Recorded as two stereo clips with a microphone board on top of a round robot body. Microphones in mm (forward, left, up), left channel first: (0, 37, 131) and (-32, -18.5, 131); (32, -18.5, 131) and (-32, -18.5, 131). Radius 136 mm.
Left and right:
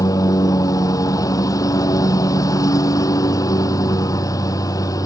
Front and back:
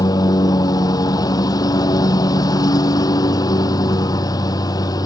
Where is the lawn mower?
25° left.